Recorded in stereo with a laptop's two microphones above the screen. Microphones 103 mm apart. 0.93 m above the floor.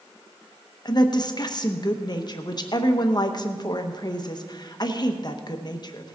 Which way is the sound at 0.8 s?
40° left (ahead or behind).